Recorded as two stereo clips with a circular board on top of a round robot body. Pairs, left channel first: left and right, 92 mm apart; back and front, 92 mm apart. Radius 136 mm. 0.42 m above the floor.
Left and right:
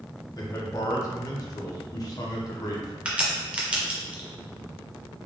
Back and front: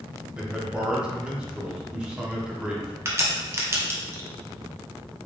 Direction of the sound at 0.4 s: 75° left.